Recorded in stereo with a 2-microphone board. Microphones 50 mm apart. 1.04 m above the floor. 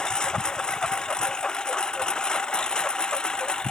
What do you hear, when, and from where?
0.0 s a lawn mower: 15° left (ahead or behind); by 3.7 s 20° left (ahead or behind)